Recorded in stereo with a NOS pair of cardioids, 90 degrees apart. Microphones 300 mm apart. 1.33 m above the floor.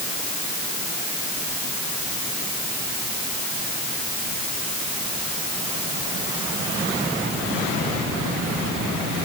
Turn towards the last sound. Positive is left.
No sound to turn to.